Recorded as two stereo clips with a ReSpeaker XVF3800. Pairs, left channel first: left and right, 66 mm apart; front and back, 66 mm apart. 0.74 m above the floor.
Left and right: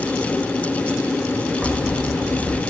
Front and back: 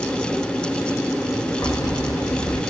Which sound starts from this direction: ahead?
Keys jangling, at 1.6 s.